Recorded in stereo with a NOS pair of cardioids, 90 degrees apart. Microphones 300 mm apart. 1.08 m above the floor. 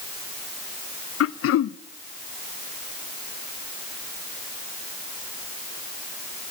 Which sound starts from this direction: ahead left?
Throat clearing, at 1.2 s.